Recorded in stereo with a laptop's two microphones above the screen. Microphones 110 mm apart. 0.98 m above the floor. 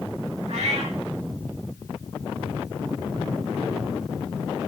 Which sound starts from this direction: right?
A cat meowing, at 0.5 s.